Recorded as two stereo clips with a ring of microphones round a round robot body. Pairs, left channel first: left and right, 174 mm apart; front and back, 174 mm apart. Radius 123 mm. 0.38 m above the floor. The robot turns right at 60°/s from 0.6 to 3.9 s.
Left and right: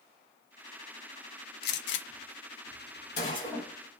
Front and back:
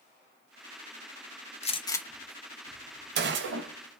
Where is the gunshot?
55° left, 0.5 m; by 4.0 s 165° right, 0.5 m.